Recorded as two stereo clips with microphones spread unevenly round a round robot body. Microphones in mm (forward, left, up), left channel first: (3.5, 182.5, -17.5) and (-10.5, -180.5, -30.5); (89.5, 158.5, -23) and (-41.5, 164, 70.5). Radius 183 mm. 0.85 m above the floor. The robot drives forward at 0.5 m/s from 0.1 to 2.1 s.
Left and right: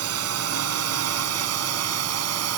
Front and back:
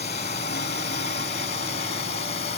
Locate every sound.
0.0 s a drone: 40° right